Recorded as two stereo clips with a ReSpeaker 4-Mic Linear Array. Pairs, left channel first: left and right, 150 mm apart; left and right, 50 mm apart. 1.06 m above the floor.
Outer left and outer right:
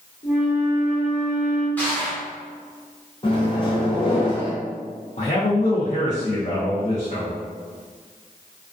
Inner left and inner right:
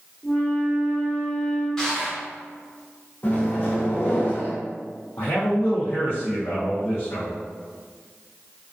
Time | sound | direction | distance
0.2 | a flute | 55° left (ahead or behind) | 1.2 m
1.8 | crushing | 10° left (ahead or behind) | 0.8 m
3.2 | a microwave | 35° left (ahead or behind) | 0.6 m
5.2 | a man speaking | 50° left (ahead or behind) | 0.5 m